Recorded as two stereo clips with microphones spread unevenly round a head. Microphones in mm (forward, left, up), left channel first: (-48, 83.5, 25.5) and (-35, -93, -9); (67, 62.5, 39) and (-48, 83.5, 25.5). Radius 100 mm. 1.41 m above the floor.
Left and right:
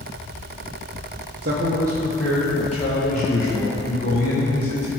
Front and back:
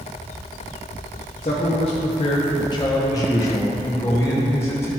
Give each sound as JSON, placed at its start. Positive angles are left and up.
{"t": 1.4, "sound": "a man speaking", "azimuth_deg": -45, "distance_m": 0.5}